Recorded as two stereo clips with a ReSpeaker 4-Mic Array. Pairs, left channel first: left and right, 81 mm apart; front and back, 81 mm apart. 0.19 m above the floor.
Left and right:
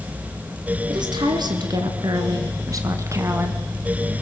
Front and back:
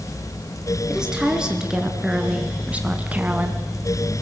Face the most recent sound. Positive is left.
turn(degrees=-125)